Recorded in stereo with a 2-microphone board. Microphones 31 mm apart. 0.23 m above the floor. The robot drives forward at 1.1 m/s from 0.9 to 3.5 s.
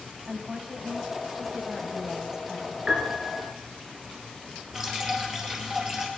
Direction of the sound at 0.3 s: 10° right (ahead or behind).